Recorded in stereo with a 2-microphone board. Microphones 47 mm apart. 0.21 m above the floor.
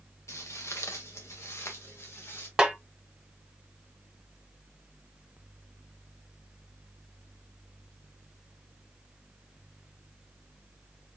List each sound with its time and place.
0.3 s footsteps: 80° left, 1.2 m; by 2.5 s 60° left (ahead or behind), 2 m
2.6 s a snare drum: 10° right (ahead or behind), 1.4 m